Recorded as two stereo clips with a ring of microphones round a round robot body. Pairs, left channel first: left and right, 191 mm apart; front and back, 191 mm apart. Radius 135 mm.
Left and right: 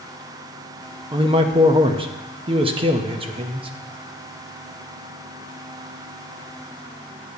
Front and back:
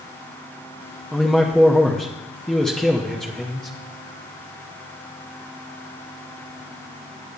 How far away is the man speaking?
About 0.8 m.